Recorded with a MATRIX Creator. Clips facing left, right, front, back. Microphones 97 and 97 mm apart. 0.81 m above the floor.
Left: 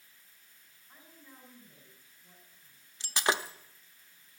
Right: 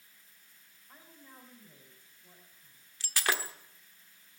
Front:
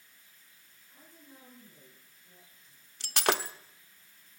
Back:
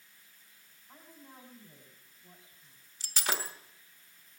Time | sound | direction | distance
0.9 | a woman speaking | 150° right | 4 m
3.0 | breaking glass | 20° left | 0.7 m